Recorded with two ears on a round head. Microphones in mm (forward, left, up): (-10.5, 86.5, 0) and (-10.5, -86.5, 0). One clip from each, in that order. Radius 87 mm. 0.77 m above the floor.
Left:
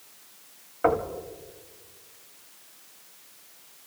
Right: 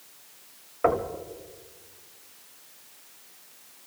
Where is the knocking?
5° right (ahead or behind), 1.6 m.